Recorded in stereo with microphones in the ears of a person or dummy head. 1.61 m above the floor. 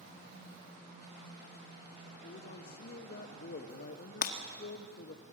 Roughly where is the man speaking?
Left.